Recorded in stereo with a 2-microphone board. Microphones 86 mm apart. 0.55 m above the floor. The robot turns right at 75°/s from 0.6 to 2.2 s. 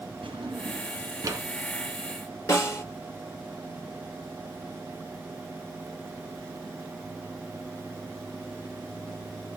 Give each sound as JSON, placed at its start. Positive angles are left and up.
{"t": 0.2, "sound": "a drawer", "side_deg": -85, "distance_m": 3.0}
{"t": 2.5, "sound": "a snare drum", "side_deg": 35, "distance_m": 4.5}